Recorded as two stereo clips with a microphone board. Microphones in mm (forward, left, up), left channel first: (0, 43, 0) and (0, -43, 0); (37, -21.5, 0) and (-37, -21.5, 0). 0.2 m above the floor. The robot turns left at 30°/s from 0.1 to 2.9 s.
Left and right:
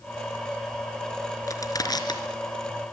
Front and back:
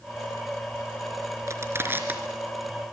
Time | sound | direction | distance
1.5 | crushing | 135° left | 3.5 m